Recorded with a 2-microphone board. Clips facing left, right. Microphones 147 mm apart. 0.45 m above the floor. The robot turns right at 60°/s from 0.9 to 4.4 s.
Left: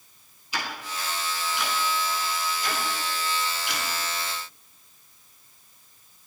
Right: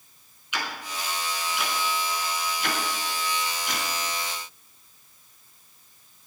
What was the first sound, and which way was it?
Ticking, 35° left (ahead or behind).